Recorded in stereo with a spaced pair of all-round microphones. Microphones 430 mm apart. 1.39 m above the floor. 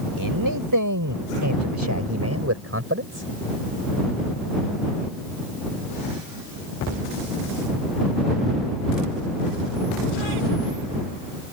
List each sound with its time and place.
0.2 s a man speaking: 50° right (ahead or behind); by 3.3 s 25° right (ahead or behind)